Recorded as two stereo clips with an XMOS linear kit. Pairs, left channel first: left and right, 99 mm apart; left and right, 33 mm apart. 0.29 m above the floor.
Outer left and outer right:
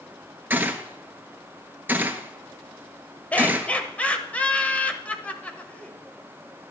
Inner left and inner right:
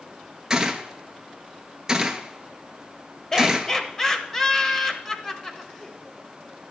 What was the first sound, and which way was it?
A gunshot, 20° right (ahead or behind).